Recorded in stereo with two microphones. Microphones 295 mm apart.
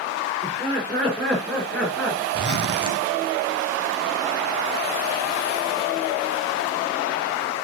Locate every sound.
0.4 s laughter: 5° left (ahead or behind), 5.5 m
2.3 s a zipper: 85° right, 1.2 m